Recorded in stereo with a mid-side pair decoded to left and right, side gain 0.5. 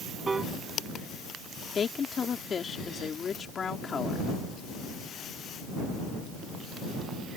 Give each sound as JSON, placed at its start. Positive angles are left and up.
{"t": 0.3, "sound": "a piano", "azimuth_deg": -30}
{"t": 1.8, "sound": "a woman speaking", "azimuth_deg": 40}